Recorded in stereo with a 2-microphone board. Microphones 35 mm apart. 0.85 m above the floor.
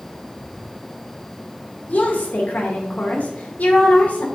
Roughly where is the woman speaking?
Left.